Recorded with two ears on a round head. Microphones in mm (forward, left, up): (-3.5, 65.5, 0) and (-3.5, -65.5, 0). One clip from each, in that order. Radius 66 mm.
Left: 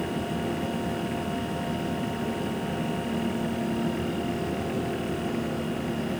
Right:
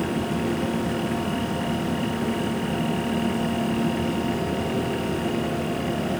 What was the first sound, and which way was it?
Only background noise.